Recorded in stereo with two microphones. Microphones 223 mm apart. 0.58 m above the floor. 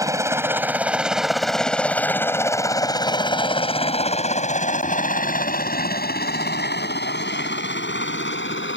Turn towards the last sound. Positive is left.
turn(degrees=60)  # may be behind; listen again after turning